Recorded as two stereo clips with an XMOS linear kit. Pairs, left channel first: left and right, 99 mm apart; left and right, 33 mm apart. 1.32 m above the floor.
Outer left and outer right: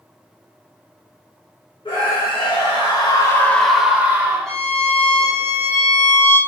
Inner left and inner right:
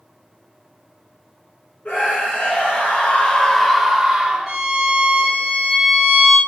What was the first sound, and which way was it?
A scream, 65° left (ahead or behind).